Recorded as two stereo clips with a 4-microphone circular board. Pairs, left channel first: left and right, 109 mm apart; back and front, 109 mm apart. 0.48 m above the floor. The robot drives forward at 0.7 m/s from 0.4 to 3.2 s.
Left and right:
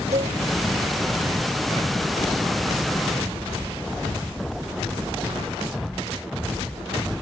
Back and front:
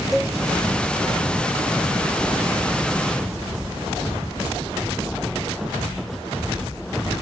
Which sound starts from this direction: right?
A cowbell, at 0.1 s.